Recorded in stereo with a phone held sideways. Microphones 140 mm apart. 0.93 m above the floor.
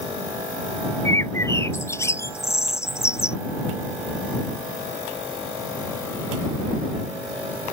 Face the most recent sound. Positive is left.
turn(degrees=20)  # may be behind; listen again after turning